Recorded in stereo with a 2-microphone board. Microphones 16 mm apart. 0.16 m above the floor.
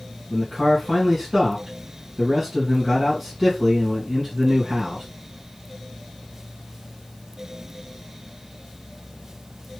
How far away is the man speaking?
About 1.9 m.